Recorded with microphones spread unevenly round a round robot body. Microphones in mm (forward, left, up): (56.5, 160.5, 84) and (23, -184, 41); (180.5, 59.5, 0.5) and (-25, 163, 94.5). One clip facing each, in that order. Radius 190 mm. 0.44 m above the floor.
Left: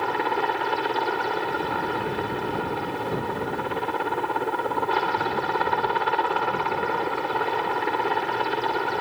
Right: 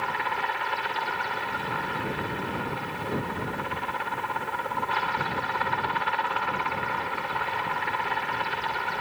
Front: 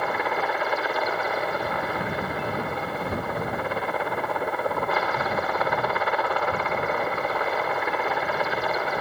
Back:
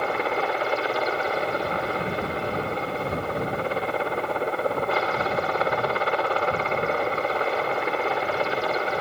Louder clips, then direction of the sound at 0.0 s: Left 9 dB, back 2 dB; 85° left.